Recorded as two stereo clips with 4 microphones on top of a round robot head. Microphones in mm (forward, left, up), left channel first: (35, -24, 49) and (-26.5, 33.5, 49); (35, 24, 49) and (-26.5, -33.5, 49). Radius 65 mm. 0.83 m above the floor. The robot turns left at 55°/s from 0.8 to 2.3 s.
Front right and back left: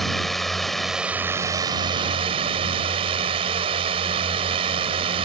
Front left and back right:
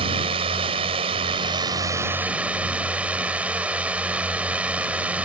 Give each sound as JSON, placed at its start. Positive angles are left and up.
{"t": 0.0, "sound": "a drone", "azimuth_deg": -130}